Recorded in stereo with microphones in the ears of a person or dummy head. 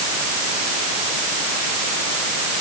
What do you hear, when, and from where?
Only background noise.